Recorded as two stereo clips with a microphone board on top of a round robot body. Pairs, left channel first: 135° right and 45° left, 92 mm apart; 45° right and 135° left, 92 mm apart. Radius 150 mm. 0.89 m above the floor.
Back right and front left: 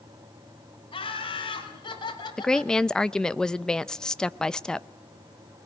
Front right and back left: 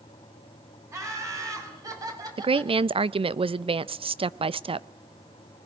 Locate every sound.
0.9 s laughter: 165° right, 7 m; by 2.7 s straight behind, 5 m
2.4 s a woman speaking: 140° left, 0.7 m